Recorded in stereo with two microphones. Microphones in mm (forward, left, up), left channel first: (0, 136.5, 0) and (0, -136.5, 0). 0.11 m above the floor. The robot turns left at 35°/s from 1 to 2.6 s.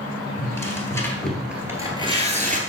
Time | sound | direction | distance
0.4 | tearing paper | 10° left (ahead or behind) | 2 m